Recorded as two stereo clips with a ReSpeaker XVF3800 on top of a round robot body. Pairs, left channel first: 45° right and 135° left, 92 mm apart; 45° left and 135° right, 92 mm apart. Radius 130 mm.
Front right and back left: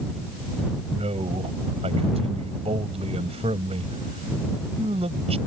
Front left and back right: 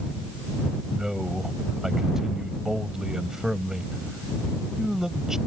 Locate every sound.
0.9 s a man speaking: 140° left